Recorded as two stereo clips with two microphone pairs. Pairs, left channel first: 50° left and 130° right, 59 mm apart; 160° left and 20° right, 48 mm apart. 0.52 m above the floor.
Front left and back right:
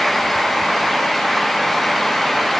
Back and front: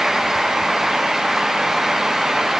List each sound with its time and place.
Only background noise.